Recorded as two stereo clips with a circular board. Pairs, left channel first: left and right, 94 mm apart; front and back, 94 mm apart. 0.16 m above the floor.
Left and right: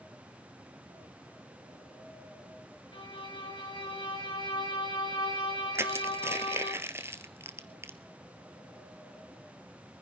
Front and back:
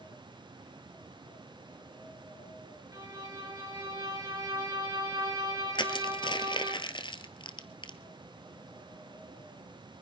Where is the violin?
125° left, 3.5 m.